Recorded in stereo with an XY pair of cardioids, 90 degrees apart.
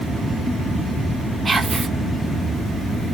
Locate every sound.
1.4 s whispering: 30° right, 0.8 m